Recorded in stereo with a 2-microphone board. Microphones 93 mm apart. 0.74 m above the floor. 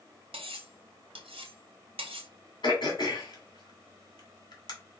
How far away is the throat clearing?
About 2 m.